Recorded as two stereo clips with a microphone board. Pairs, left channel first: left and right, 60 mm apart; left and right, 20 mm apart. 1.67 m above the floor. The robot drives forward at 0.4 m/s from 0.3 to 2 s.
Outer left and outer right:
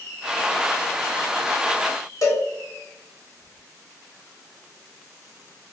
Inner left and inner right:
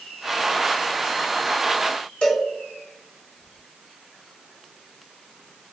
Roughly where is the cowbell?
Left.